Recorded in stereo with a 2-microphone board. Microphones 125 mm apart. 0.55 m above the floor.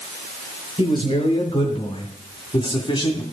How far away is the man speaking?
About 2.5 m.